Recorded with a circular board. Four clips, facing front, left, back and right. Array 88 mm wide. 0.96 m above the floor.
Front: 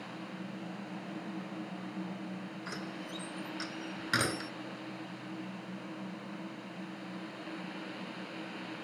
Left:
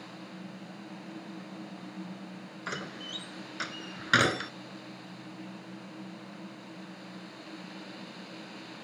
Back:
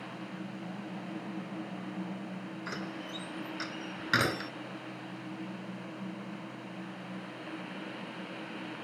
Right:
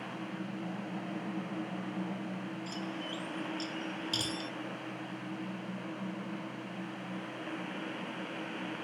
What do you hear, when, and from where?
2.7 s a door slam: 105° left